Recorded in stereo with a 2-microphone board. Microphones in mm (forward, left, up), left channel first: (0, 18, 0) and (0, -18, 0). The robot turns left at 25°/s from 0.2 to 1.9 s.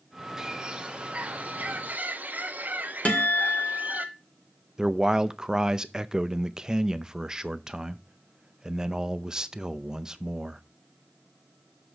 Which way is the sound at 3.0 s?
45° left (ahead or behind).